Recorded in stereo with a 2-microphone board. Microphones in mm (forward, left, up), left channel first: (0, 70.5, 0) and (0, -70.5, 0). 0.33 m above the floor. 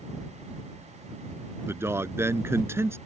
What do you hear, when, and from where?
1.7 s a man speaking: 15° right (ahead or behind)